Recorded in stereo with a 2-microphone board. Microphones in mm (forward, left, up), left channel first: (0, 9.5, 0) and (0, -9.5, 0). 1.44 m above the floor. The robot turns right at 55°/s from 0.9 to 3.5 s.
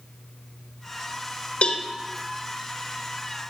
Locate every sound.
1.6 s a cowbell: 65° left (ahead or behind), 3.5 m; by 1.8 s 50° left (ahead or behind), 3.5 m